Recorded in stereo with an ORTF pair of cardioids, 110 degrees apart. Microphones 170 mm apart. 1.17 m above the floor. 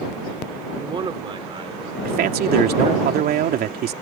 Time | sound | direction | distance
0.7 | a man speaking | 30° right | ?
2.0 | a man speaking | 65° right | ?